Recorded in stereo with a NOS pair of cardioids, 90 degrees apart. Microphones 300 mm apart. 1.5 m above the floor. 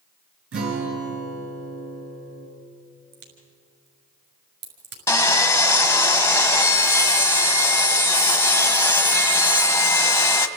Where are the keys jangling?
I don't hear keys jangling.